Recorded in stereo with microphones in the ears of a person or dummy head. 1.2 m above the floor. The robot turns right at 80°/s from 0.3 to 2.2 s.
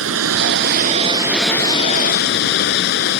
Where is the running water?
95° right; by 3.2 s 60° left.